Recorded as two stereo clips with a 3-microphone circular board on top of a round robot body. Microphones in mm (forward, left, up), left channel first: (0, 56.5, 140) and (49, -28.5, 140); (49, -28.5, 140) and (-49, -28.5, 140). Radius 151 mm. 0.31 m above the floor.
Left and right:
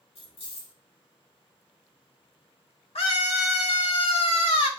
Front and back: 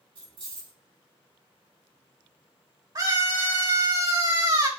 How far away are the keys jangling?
About 4.5 m.